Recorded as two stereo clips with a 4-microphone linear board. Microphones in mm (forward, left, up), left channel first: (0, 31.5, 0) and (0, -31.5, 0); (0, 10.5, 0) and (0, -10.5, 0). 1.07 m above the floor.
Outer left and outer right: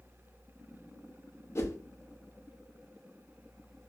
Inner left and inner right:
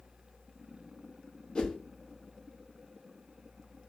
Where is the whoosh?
45° left (ahead or behind), 0.7 m.